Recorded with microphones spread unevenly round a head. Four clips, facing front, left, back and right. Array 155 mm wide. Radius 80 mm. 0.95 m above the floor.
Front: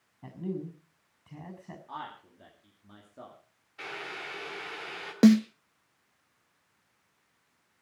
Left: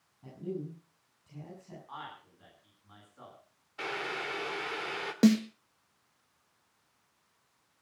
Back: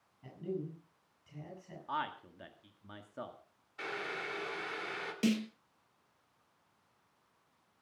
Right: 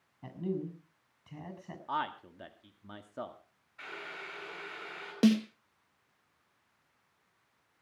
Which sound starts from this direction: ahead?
A snare drum, at 5.2 s.